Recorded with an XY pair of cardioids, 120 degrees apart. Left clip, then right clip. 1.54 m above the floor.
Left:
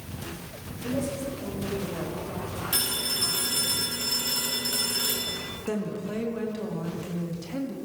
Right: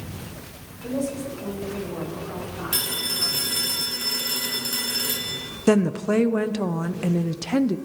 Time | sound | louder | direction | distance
0.8 | a woman speaking | right 2 dB | 20° right | 6.5 m
2.7 | a phone ringing | right 2 dB | 15° right | 5.5 m
5.7 | a woman speaking | right 13 dB | 70° right | 0.8 m